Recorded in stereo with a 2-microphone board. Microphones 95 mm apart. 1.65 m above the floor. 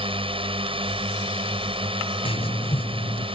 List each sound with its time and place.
0.0 s a drone: 70° right (ahead or behind)
2.2 s writing: 75° left (ahead or behind)